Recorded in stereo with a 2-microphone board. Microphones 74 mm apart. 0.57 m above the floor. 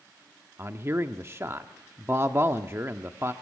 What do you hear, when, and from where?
0.6 s a man speaking: 30° right (ahead or behind), 1.0 m